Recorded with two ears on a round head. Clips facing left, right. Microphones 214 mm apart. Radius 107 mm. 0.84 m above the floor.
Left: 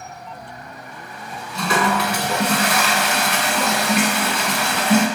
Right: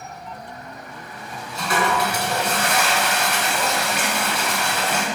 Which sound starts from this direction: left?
A toilet flushing, at 1.6 s.